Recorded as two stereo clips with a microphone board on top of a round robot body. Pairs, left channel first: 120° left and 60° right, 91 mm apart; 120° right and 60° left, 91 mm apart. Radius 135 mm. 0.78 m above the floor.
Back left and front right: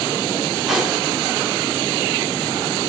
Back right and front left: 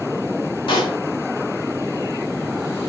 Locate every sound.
0.7 s a pop: 145° right, 3 m